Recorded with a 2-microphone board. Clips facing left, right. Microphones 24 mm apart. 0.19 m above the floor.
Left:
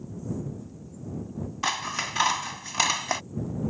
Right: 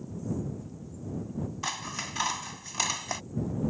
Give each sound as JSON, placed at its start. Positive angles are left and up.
{"t": 1.6, "sound": "scissors", "side_deg": 25}